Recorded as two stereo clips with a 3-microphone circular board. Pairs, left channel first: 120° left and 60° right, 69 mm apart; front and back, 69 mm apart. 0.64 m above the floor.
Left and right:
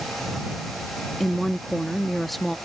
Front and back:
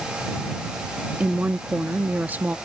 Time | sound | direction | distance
1.2 | a woman speaking | 155° right | ?